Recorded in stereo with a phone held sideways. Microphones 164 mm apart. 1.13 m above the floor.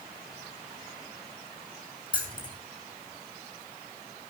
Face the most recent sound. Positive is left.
turn(degrees=30)  # may be behind; listen again after turning